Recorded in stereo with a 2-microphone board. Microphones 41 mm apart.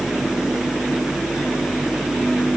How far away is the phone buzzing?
I don't hear a phone buzzing.